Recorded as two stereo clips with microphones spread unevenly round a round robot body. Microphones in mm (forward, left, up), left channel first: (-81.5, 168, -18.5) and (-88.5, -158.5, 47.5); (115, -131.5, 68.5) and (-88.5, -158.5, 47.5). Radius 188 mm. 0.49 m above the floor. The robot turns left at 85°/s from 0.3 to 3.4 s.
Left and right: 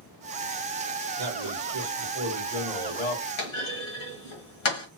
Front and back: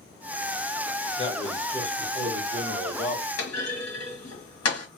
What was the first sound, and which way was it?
A man speaking, 55° right.